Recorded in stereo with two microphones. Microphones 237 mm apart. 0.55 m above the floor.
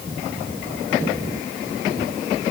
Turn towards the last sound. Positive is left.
No sound to turn to.